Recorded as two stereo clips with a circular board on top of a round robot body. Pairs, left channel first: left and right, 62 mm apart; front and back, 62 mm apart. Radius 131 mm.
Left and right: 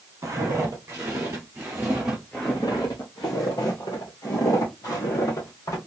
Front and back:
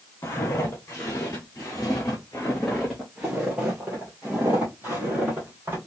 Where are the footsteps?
50° right, 1.3 m; by 5.8 s 120° left, 1.9 m.